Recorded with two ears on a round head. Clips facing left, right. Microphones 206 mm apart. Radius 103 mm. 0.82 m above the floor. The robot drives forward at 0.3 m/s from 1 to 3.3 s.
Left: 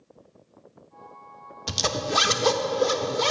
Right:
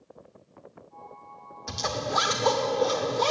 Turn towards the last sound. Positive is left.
turn(degrees=30)  # may be behind; listen again after turning